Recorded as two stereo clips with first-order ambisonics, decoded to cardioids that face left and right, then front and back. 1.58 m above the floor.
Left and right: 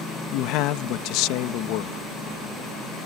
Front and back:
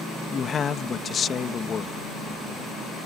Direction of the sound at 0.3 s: 65° left.